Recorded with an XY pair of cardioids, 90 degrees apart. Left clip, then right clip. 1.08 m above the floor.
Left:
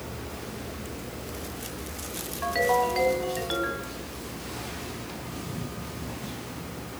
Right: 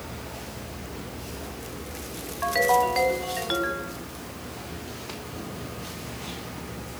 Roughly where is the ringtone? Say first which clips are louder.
Right 3 dB; ahead right.